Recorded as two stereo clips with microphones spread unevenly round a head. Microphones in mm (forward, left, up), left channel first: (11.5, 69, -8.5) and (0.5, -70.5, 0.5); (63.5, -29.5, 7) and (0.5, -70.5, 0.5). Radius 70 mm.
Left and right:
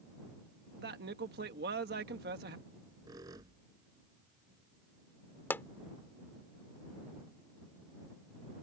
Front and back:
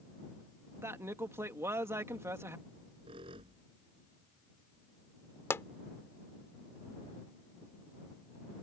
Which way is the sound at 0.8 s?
95° right.